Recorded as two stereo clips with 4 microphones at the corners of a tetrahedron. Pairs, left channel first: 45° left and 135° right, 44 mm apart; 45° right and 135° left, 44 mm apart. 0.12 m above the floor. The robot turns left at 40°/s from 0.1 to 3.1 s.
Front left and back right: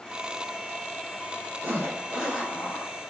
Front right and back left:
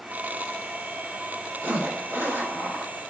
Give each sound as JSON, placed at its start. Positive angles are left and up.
{"t": 1.6, "sound": "a zipper", "azimuth_deg": 175, "distance_m": 2.0}